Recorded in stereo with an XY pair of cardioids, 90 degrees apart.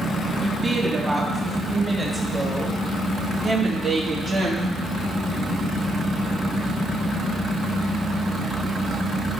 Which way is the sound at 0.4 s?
25° right.